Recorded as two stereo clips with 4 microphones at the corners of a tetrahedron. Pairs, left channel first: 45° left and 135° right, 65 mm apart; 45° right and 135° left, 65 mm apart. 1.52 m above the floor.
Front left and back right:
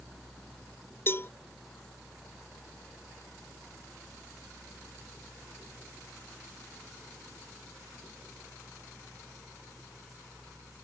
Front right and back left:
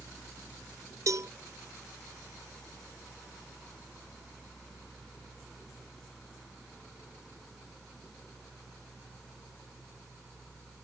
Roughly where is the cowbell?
Left.